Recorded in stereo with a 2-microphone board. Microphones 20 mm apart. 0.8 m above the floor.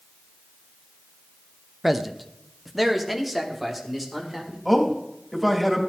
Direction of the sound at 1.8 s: 15° right (ahead or behind).